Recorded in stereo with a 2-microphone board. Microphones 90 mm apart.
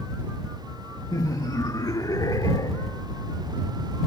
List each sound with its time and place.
1.1 s laughter: 40° left (ahead or behind)